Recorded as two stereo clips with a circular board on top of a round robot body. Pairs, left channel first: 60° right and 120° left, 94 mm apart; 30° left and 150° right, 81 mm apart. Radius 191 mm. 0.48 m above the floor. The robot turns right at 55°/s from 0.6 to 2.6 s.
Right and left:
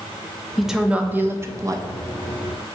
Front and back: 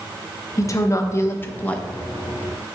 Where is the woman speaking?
30° left, 1.0 m; by 1.9 s 100° left, 1.0 m.